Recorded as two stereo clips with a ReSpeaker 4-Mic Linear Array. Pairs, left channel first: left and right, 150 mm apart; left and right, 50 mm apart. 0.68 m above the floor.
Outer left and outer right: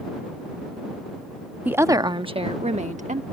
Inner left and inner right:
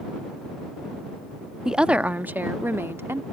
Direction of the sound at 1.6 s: 10° right (ahead or behind).